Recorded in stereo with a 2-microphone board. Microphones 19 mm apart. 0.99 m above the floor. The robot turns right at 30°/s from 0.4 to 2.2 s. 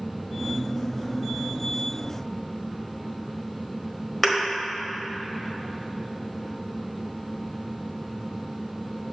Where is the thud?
10° left (ahead or behind), 1.4 m.